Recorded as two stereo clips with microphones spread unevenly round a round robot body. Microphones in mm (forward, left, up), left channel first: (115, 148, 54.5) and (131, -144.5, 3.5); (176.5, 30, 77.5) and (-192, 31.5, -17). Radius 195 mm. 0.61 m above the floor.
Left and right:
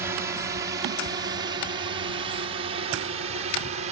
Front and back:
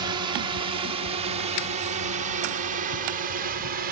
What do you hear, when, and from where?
0.0 s a drone: 145° right; by 3.9 s 140° right